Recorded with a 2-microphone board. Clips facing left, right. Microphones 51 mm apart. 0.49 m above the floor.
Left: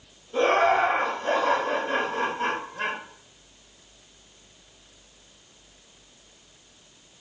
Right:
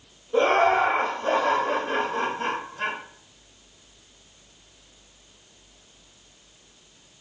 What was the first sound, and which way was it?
Laughter, 50° right (ahead or behind).